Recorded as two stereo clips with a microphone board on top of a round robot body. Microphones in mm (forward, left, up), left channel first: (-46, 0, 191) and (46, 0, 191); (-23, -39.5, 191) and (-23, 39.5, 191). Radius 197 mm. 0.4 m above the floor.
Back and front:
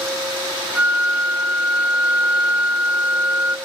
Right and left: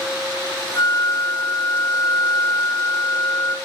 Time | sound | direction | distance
0.8 | a flute | 75° right | 1.5 m